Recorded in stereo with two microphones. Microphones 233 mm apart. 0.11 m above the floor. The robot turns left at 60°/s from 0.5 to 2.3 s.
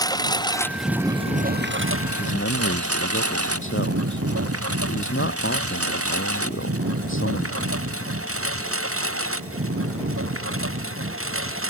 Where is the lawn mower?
15° left (ahead or behind); by 11.7 s 65° right (ahead or behind).